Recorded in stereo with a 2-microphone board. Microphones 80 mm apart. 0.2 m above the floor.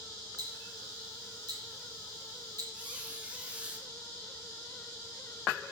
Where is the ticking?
55° right (ahead or behind), 3 m.